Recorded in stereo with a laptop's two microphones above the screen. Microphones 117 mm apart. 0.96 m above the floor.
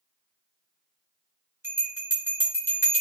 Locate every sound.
1.6 s a bell: 20° right (ahead or behind), 0.7 m